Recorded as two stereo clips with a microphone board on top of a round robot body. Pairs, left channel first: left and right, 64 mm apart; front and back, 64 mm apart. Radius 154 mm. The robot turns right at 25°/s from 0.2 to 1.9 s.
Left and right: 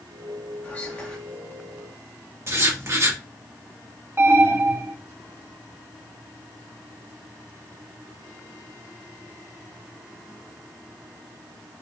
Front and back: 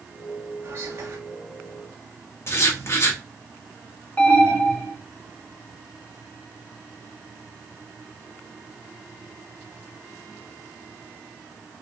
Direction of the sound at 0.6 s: 145° left.